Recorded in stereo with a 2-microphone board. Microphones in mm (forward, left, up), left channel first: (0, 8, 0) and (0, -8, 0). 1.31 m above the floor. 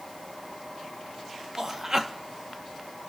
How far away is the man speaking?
About 1.7 m.